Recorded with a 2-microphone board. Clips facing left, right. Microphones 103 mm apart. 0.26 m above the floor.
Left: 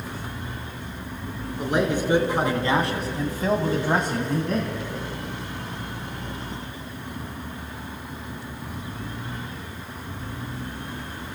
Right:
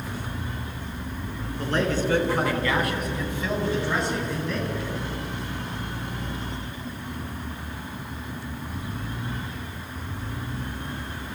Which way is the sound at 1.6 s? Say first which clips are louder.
Left 2 dB; 15° left (ahead or behind).